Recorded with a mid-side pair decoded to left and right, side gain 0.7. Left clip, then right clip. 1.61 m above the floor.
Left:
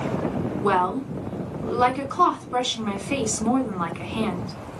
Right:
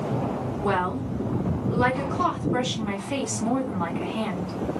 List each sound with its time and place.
0.6 s a woman speaking: 40° left, 1.6 m